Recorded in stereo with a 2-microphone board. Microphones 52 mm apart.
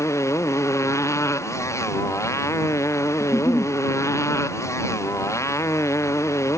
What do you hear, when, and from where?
0.0 s a motorcycle: 65° left (ahead or behind)
3.2 s a giggle: 55° left (ahead or behind)